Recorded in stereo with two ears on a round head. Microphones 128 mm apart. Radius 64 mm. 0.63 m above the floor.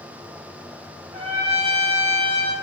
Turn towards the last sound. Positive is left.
turn(degrees=-40)  # may be behind; listen again after turning